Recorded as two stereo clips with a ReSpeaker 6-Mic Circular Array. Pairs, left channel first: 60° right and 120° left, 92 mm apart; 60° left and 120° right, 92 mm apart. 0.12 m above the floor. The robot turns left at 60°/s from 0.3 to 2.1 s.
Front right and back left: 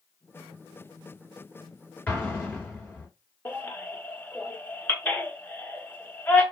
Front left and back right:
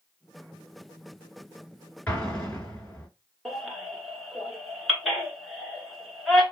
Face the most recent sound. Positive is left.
turn(degrees=-30)